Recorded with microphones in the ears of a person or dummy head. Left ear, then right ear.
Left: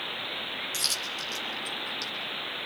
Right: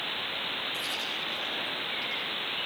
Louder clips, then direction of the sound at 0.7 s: Left 2 dB; 60° left (ahead or behind).